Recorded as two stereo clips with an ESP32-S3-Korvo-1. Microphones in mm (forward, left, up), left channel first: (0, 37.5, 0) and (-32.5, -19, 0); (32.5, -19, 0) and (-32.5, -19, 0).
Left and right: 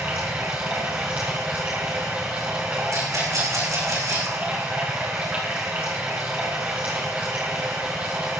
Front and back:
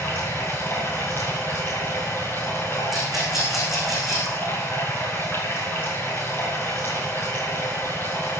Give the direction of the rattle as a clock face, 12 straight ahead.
3 o'clock.